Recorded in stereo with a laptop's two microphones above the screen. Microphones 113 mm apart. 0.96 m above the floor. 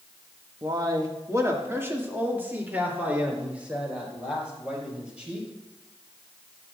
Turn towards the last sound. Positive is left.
turn(degrees=-10)  # may be behind; listen again after turning